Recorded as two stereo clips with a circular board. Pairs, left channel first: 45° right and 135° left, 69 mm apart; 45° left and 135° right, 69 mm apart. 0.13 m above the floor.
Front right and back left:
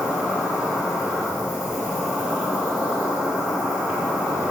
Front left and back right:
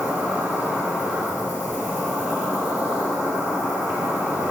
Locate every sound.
0.0 s an insect: 165° right, 2 m